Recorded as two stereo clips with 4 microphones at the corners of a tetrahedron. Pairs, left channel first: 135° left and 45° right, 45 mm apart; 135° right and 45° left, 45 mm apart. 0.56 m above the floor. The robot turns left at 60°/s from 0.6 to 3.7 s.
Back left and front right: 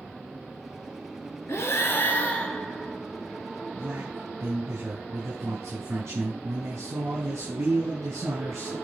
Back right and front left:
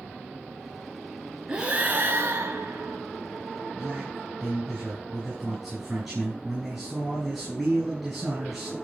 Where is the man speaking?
40° right, 5.5 m.